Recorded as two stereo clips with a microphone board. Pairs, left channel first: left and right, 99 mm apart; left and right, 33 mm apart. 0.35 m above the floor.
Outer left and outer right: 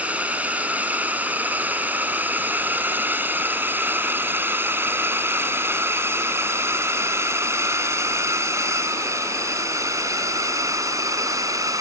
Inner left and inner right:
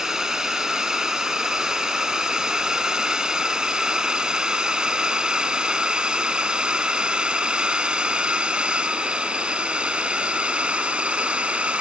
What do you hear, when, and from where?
0.0 s a drone: 15° right (ahead or behind); by 11.8 s 35° right (ahead or behind)